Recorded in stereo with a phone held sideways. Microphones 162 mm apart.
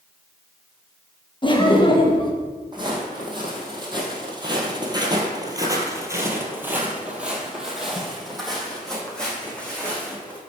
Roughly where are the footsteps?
Right.